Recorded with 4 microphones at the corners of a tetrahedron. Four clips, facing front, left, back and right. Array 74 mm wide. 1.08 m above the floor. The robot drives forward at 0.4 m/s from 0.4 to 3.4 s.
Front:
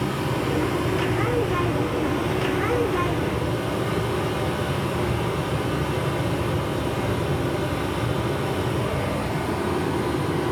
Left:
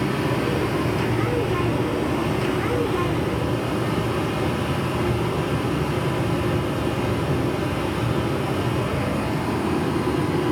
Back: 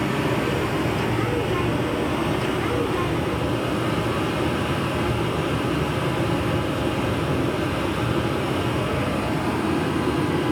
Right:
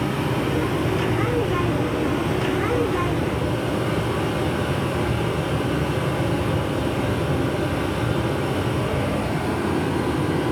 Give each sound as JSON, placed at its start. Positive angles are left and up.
{"t": 0.0, "sound": "running water", "azimuth_deg": 160, "distance_m": 2.5}